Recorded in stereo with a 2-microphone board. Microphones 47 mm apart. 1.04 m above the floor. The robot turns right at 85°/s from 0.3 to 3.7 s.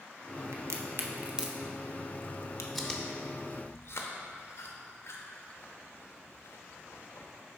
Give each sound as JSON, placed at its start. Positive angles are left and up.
{"t": 0.5, "sound": "a crack", "side_deg": -85, "distance_m": 0.6}
{"t": 2.8, "sound": "chewing", "side_deg": 0, "distance_m": 0.7}